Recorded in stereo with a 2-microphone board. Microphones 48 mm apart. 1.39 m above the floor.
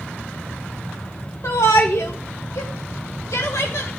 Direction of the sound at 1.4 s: 75° left (ahead or behind).